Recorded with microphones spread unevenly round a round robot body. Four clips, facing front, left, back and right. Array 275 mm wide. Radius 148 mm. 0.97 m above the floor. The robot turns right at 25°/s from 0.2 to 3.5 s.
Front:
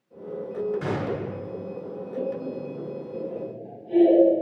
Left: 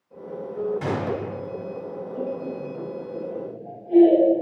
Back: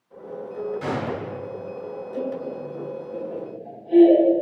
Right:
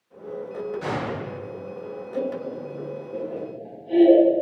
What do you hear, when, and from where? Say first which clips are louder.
0.8 s a gunshot: left 2 dB, back 1 dB; 65° left, 1.5 m; by 1.3 s 80° left, 1.5 m
2.1 s laughter: right 2 dB, even; 135° right, 1.7 m; by 4.4 s 105° right, 1.7 m